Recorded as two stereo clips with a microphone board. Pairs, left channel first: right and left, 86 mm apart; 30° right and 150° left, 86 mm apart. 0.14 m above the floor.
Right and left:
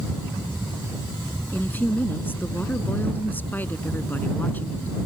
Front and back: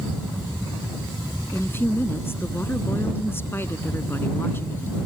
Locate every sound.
1.5 s a woman speaking: 50° right